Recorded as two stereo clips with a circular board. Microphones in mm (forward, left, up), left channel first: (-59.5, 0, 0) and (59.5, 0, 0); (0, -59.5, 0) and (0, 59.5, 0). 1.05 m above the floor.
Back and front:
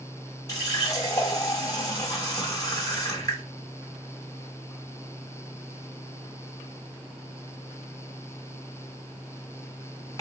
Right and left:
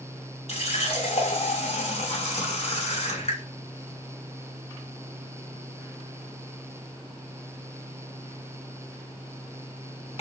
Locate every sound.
0.5 s a running tap: 120° right, 0.9 m